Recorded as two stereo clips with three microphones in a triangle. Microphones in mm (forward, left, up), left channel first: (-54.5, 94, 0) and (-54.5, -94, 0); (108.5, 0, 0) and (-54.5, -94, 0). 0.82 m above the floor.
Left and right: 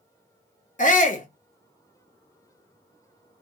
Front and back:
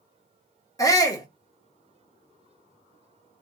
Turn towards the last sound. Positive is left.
turn(degrees=90)